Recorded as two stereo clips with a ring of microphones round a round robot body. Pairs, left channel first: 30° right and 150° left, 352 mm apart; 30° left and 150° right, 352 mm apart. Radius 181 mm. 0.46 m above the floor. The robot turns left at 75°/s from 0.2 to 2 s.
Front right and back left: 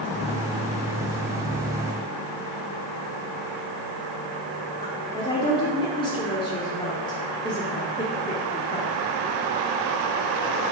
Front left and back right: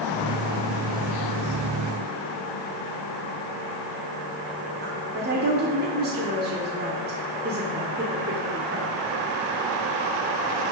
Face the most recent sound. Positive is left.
turn(degrees=-100)